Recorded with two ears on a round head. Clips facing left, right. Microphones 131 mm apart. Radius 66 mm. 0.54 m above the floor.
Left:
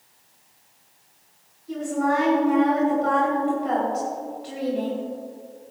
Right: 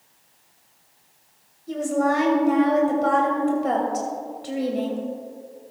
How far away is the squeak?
No squeak in this recording.